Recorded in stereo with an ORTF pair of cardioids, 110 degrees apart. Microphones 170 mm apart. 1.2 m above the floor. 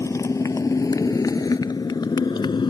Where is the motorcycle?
20° left; by 2.7 s 25° left.